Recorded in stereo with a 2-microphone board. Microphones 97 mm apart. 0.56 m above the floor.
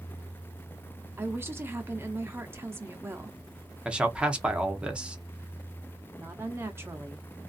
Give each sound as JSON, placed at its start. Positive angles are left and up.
{"t": 1.2, "sound": "a woman speaking", "side_deg": -25, "distance_m": 0.7}
{"t": 3.9, "sound": "a man speaking", "side_deg": -10, "distance_m": 0.7}
{"t": 6.2, "sound": "a woman speaking", "side_deg": -25, "distance_m": 0.8}